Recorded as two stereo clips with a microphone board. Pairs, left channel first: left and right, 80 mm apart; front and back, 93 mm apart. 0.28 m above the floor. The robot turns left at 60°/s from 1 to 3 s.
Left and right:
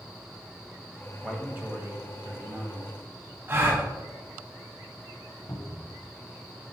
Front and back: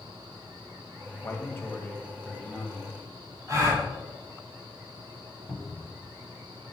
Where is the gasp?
140° right, 1.5 m.